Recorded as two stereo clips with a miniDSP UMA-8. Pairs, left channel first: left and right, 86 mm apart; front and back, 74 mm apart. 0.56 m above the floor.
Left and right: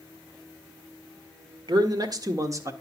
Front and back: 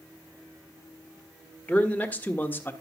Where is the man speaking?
70° right, 1.9 m; by 2.7 s 50° right, 1.3 m.